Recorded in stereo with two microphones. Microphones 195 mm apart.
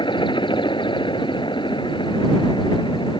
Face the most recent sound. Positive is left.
turn(degrees=25)  # may be behind; listen again after turning